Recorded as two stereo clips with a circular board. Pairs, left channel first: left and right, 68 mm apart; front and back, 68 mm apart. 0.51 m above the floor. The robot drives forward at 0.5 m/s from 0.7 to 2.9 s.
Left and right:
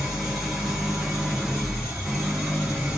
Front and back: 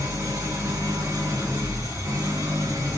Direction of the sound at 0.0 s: 175° right.